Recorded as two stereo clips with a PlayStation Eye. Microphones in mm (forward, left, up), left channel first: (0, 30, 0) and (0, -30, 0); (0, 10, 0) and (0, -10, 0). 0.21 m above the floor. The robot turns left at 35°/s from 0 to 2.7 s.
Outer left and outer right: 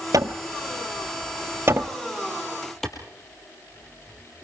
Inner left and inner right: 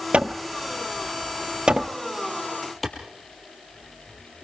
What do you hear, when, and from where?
0.1 s hammering: 80° right, 1.3 m; by 1.9 s 35° right (ahead or behind), 1.3 m
2.8 s a clap: centre (ahead or behind), 4 m